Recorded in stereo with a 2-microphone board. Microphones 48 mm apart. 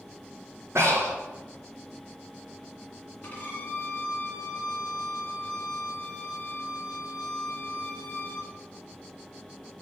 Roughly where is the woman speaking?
I don't hear a woman speaking.